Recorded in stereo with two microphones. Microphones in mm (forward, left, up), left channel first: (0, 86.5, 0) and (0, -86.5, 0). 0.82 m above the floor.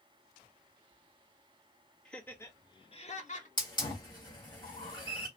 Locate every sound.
2.0 s laughter: 5° left (ahead or behind), 1.3 m; by 3.5 s 45° left (ahead or behind), 1.0 m
3.6 s a hiss: 25° left (ahead or behind), 1.8 m